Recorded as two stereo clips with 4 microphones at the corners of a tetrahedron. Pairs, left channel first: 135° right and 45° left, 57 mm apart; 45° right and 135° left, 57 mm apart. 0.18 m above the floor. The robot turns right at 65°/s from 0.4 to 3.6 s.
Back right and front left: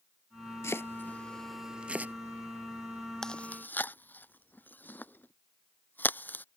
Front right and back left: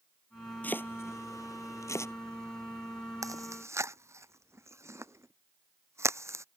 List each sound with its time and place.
0.6 s chopping: 105° right; by 2.1 s 5° right
3.2 s chewing: 145° left; by 6.5 s 170° left